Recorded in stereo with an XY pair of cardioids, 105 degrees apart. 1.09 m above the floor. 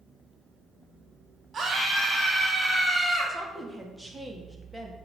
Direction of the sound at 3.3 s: 15° right.